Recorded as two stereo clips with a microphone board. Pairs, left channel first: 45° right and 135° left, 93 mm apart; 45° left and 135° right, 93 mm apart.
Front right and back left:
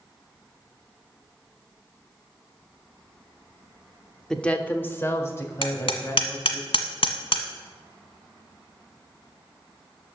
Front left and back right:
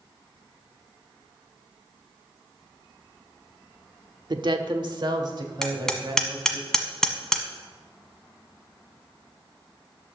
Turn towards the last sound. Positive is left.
turn(degrees=-40)